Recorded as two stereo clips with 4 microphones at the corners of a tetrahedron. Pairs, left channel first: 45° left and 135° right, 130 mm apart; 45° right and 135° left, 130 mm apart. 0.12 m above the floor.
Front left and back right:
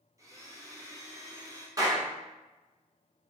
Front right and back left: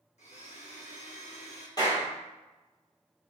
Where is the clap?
85° right, 1.5 m.